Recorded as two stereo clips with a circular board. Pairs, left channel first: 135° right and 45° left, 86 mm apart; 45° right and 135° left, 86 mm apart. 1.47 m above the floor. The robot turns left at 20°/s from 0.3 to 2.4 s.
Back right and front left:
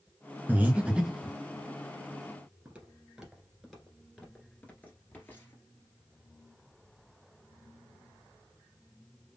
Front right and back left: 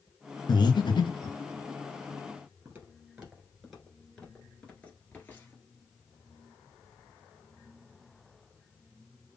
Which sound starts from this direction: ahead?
Breathing, at 0.5 s.